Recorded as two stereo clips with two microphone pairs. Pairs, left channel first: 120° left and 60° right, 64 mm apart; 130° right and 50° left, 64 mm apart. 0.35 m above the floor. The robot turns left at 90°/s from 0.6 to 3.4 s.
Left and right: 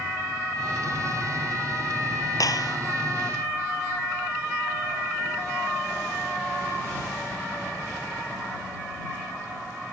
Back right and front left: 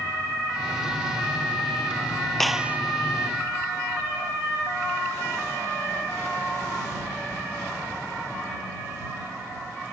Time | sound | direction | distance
2.4 | a clap | 145° left | ?